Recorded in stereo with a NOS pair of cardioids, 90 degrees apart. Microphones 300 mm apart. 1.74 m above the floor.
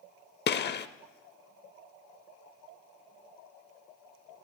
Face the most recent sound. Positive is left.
turn(degrees=35)